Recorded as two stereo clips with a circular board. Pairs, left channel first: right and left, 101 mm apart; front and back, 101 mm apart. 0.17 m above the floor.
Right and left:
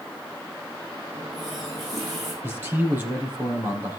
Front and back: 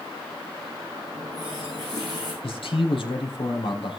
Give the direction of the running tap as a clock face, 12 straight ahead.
7 o'clock.